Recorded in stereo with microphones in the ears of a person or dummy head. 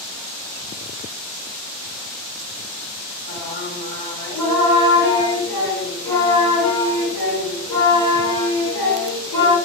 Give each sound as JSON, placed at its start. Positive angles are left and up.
{"t": 3.3, "sound": "singing", "side_deg": 20, "distance_m": 3.5}